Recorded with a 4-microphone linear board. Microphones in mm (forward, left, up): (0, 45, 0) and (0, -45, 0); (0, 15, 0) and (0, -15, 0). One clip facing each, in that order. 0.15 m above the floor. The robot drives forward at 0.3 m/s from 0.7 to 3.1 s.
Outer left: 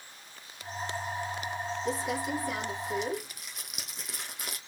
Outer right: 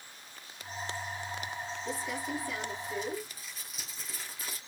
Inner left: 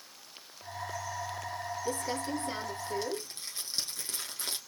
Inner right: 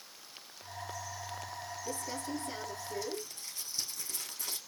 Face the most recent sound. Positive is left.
turn(degrees=65)  # may be behind; listen again after turning